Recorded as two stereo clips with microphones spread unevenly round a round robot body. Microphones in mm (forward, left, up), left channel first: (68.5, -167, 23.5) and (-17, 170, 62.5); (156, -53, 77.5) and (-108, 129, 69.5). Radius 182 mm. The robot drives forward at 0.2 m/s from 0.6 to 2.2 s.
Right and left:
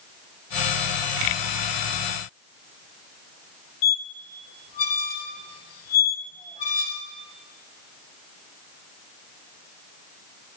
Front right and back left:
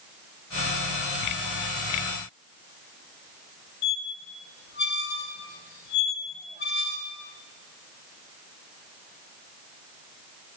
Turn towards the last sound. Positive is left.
turn(degrees=-95)